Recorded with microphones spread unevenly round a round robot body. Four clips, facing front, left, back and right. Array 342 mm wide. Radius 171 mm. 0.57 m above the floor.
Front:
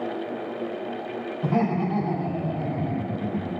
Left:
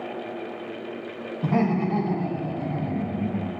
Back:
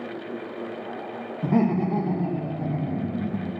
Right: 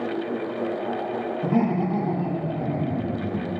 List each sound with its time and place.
1.4 s laughter: 175° right, 1.2 m; by 3.5 s 135° right, 3.5 m